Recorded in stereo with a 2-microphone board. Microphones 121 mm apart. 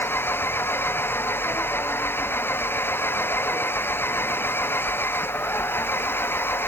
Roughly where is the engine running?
Centre.